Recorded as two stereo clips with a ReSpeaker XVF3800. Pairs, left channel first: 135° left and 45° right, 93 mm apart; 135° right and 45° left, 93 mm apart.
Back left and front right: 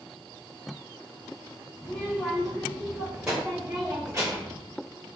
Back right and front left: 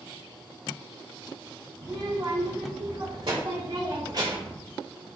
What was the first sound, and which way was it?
A child speaking, 55° left.